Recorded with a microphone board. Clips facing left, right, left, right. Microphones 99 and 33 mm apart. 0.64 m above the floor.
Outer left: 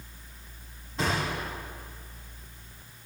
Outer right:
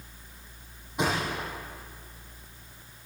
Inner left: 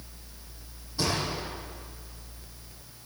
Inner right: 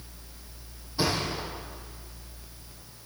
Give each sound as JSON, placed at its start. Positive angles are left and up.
{"t": 1.0, "sound": "a thud", "side_deg": -15, "distance_m": 7.5}